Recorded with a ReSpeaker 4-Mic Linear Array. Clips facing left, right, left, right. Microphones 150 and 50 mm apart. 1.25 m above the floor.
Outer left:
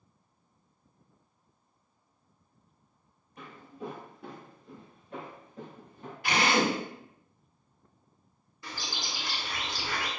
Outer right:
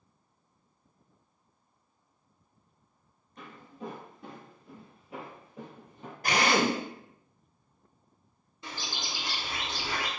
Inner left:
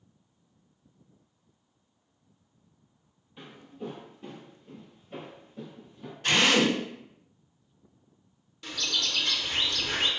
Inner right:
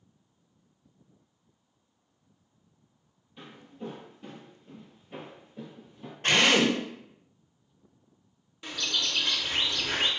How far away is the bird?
About 0.5 m.